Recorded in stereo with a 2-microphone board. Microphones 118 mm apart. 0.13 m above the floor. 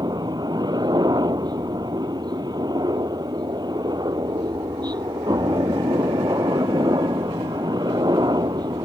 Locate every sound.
0.0 s a helicopter: 35° right (ahead or behind)